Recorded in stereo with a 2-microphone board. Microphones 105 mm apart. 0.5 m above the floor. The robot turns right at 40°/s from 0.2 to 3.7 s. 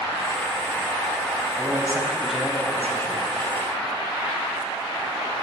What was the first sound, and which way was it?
A man speaking, 30° right.